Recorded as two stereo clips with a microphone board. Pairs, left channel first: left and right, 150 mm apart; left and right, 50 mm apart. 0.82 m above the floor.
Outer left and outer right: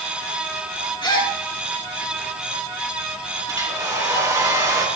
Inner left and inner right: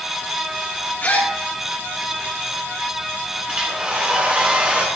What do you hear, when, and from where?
1.0 s a gasp: 30° left (ahead or behind), 4 m
3.5 s a hair dryer: 25° right (ahead or behind), 5 m